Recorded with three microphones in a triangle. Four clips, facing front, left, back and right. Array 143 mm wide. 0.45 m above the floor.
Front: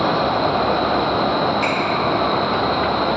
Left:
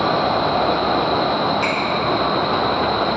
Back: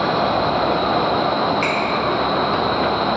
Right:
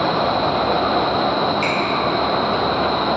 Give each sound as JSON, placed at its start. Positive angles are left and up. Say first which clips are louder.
{"t": 1.6, "sound": "a finger snap", "louder": "even, even", "azimuth_deg": 165, "distance_m": 1.4}